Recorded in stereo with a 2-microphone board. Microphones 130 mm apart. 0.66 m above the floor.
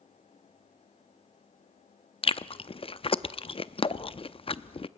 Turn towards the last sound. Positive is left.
turn(degrees=45)  # may be behind; listen again after turning